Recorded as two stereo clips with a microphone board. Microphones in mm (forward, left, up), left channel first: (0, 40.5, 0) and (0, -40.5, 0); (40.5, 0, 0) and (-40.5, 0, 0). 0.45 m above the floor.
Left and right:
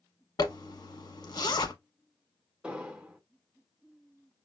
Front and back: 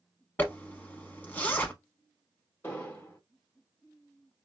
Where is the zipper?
65° left, 0.7 m.